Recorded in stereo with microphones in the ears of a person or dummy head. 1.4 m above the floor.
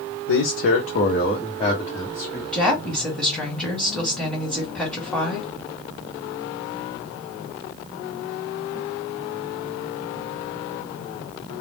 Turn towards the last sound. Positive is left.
turn(degrees=5)  # may be behind; listen again after turning